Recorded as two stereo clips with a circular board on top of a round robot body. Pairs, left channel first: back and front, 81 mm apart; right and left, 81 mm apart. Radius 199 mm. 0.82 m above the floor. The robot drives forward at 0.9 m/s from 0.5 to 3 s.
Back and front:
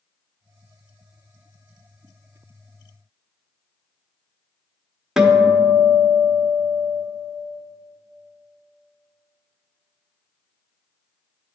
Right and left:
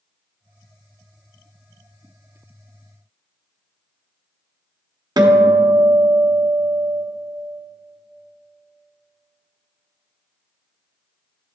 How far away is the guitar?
About 1.1 m.